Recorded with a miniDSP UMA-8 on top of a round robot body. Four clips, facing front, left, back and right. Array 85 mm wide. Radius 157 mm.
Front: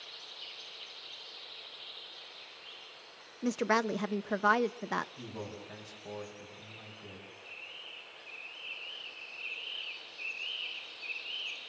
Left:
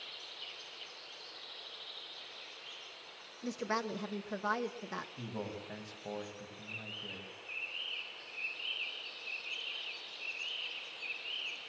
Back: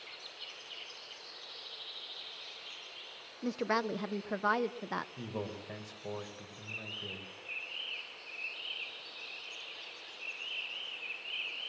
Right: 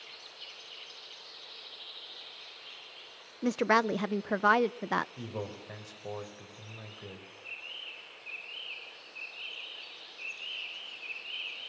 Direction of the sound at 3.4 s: 75° right.